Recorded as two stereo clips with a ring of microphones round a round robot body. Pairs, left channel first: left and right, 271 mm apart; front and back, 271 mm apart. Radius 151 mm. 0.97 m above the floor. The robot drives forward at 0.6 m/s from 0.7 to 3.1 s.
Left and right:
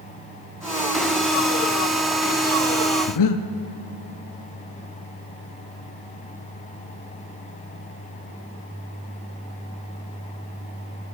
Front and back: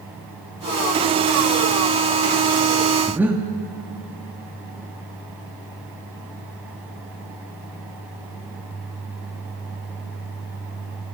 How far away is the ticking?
No ticking in this recording.